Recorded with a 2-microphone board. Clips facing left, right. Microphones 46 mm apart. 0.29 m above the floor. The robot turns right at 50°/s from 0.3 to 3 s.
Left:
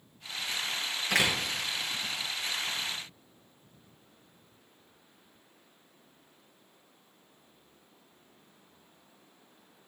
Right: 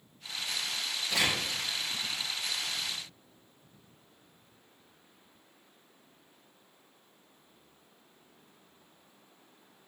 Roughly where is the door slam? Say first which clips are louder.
Left 3 dB; left.